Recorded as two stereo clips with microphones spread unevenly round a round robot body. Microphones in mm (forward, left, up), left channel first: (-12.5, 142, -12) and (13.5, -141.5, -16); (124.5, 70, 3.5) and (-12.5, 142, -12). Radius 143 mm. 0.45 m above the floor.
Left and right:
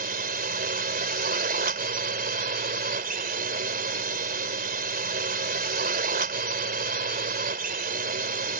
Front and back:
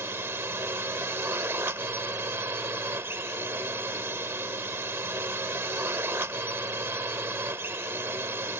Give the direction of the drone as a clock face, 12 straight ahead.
4 o'clock.